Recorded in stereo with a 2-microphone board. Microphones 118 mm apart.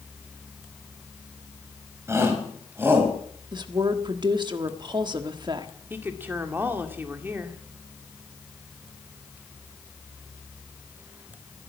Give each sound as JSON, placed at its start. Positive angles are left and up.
{"t": 2.1, "sound": "a shout", "side_deg": -25, "distance_m": 3.5}
{"t": 3.5, "sound": "a woman speaking", "side_deg": -40, "distance_m": 1.4}
{"t": 5.9, "sound": "a woman speaking", "side_deg": -15, "distance_m": 1.9}